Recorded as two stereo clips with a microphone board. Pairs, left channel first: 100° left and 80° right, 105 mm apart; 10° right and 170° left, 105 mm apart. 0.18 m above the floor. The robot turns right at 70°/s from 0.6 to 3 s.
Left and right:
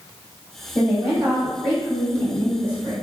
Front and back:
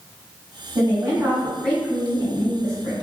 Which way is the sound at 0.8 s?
155° right.